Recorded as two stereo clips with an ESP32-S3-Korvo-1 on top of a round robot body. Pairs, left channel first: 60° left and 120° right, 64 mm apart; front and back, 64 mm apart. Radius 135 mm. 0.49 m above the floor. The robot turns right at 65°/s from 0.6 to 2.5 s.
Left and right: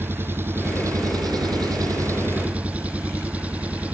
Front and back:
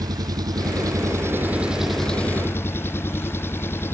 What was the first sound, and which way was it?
An engine running, 175° right.